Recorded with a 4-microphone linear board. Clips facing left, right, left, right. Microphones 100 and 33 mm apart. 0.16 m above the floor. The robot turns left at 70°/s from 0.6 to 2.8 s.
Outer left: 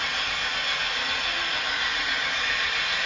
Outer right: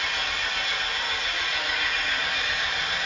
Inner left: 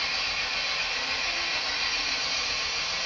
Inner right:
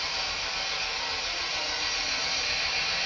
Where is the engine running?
115° left, 1.3 m; by 3.1 s 40° right, 1.3 m.